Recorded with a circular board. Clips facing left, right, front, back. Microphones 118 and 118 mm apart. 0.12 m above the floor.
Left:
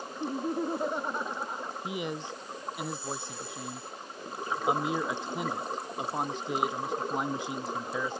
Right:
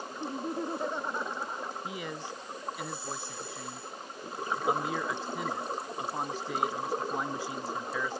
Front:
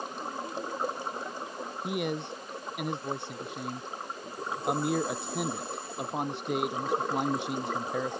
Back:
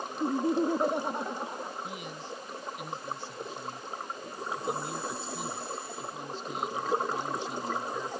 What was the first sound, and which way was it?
Laughter, 165° left.